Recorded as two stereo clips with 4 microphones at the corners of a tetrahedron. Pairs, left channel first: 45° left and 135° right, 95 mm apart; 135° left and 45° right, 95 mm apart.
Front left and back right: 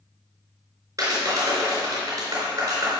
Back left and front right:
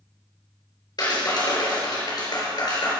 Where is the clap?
175° left, 4 m.